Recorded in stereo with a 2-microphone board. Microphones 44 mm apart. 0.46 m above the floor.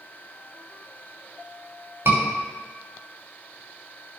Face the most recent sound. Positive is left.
turn(degrees=-60)  # may be behind; listen again after turning